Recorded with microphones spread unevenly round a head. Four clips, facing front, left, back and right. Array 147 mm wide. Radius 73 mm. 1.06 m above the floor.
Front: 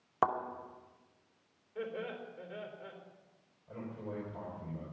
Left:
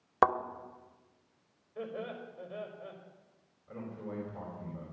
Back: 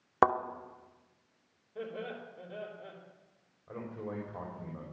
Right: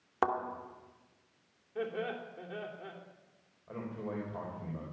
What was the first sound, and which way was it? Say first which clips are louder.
A thud: left 5 dB, back 5 dB; 175° left.